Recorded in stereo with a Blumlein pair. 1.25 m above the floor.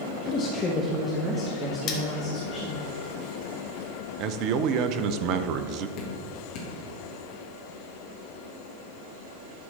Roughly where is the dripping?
Ahead left.